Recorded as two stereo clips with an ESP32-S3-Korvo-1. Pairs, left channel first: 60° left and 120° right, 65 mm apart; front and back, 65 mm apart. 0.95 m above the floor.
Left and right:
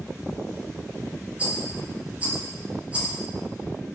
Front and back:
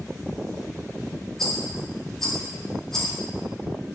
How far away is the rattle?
About 0.6 m.